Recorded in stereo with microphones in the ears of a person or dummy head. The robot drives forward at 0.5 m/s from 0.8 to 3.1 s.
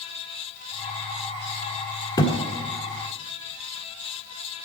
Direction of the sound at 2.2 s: 20° left (ahead or behind).